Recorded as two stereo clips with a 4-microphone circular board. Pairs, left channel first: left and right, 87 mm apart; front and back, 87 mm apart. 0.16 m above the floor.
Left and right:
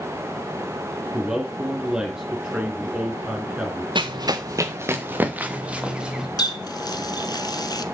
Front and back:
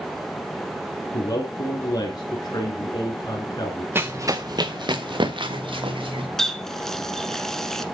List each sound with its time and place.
1.1 s a man speaking: 15° right, 2 m
4.0 s running footsteps: 115° right, 1.1 m; by 6.3 s 170° right, 3 m
6.4 s a running tap: 80° left, 1.1 m